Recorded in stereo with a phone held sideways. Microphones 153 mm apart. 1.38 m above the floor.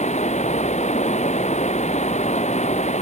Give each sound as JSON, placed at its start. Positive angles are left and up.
{"t": 0.0, "sound": "running water", "side_deg": 50}